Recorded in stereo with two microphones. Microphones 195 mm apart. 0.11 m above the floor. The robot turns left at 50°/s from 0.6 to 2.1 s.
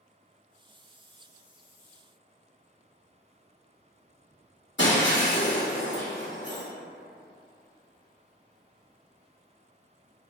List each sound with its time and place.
4.8 s breaking glass: 80° left, 1.0 m